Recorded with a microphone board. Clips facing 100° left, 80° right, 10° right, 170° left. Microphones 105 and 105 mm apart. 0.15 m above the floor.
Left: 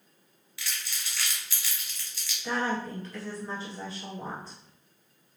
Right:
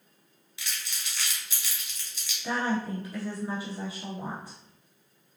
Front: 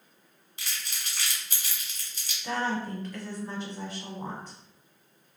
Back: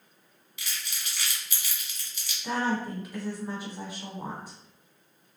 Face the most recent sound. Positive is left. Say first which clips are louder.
# right 1 dB, back 1 dB
turn(degrees=-130)